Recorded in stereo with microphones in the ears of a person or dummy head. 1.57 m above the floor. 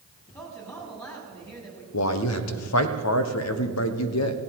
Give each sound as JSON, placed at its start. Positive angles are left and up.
{"t": 0.3, "sound": "a man speaking", "side_deg": 15, "distance_m": 4.0}
{"t": 1.9, "sound": "a man speaking", "side_deg": 80, "distance_m": 1.1}